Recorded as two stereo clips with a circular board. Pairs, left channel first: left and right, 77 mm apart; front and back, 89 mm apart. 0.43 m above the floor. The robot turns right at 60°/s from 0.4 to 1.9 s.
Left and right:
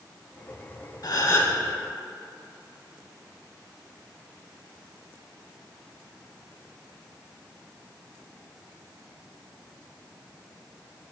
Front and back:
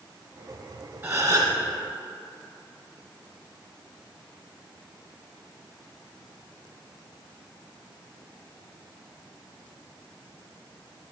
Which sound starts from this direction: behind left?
A gasp, at 1.0 s.